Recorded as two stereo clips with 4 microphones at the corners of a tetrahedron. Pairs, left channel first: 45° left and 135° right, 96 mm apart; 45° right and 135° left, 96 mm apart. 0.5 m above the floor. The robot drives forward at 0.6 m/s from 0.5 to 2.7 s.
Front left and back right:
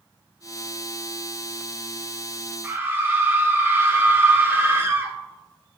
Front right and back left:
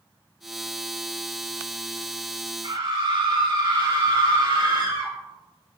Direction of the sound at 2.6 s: 160° left.